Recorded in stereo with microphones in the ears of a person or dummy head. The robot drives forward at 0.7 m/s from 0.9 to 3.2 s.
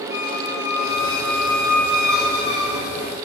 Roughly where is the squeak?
Centre.